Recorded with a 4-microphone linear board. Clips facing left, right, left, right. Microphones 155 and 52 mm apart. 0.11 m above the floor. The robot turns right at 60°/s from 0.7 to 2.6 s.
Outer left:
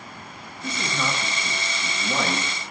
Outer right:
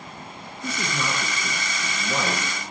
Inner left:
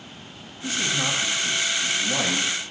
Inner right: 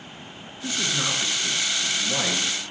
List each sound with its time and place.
0.6 s a man speaking: 30° right (ahead or behind), 1.4 m; by 2.5 s 5° left (ahead or behind), 1.4 m